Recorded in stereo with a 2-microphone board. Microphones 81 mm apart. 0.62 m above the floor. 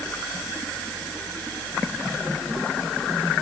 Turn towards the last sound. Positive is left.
No sound to turn to.